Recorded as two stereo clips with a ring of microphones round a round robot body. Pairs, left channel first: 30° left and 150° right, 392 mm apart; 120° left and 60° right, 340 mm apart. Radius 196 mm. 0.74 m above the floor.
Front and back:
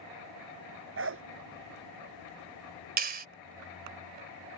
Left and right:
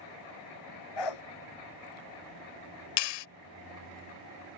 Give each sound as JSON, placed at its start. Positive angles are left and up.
{"t": 1.0, "sound": "a dog barking", "azimuth_deg": 150}
{"t": 3.0, "sound": "a clap", "azimuth_deg": 140}